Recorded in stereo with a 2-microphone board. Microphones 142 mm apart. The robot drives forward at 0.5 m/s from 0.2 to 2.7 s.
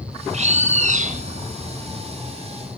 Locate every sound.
0.3 s a bird: 55° right (ahead or behind), 1.6 m; by 1.2 s 70° right (ahead or behind), 1.5 m